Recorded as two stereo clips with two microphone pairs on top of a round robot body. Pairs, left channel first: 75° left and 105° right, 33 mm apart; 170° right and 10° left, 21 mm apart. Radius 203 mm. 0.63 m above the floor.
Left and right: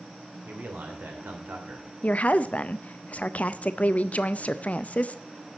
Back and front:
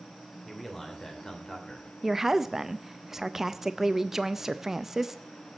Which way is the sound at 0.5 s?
85° right.